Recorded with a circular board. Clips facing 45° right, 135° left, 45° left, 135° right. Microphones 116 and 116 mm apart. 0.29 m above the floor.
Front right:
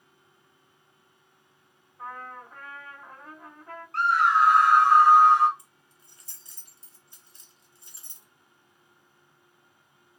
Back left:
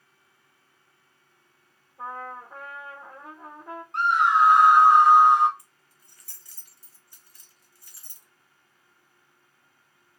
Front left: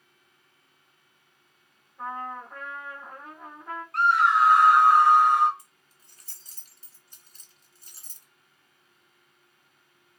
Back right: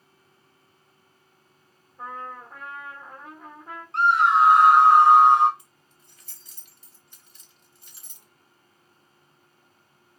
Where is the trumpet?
140° left, 2 m.